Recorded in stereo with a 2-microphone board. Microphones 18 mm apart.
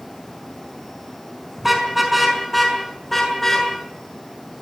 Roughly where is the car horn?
Centre.